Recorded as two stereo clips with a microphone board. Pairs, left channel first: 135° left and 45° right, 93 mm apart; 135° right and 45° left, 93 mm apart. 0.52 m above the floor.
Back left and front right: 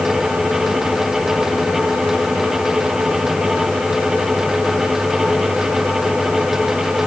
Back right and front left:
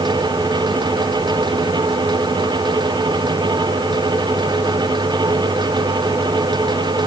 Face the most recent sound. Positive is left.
No sound to turn to.